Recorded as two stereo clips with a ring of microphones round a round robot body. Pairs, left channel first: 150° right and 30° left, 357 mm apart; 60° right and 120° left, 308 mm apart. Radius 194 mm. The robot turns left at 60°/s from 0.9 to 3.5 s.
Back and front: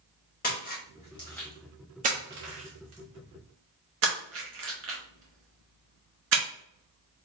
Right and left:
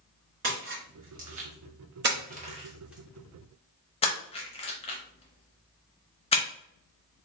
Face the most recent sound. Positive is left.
turn(degrees=0)